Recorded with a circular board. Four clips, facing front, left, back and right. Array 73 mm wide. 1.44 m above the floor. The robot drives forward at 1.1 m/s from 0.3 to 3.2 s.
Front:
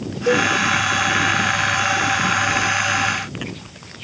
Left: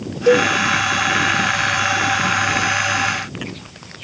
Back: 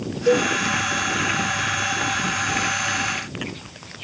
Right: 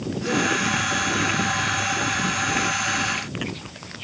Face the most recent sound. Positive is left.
turn(degrees=165)